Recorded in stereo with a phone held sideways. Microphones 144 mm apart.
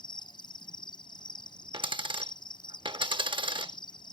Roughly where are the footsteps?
No footsteps in this recording.